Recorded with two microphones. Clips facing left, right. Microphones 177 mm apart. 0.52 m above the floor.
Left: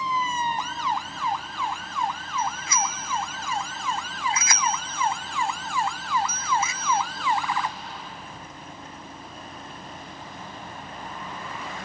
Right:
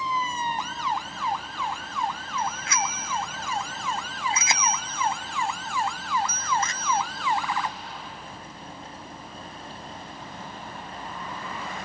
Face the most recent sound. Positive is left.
turn(degrees=10)  # may be behind; listen again after turning